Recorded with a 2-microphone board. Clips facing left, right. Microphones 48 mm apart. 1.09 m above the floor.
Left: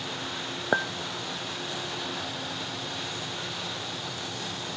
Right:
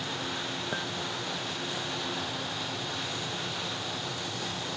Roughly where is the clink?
Left.